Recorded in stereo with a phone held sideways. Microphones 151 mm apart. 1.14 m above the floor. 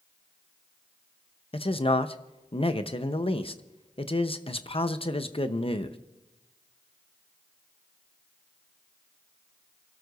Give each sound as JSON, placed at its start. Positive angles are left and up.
{"t": 1.5, "sound": "a man speaking", "side_deg": 40, "distance_m": 0.9}